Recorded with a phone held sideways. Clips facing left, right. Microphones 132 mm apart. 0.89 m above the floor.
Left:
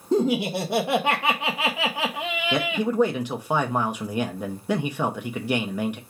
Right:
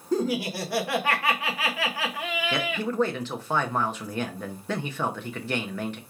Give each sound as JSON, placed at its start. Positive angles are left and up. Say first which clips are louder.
{"t": 0.1, "sound": "laughter", "louder": "left 4 dB", "side_deg": 20, "distance_m": 0.6}
{"t": 2.5, "sound": "a man speaking", "louder": "left 6 dB", "side_deg": 15, "distance_m": 0.5}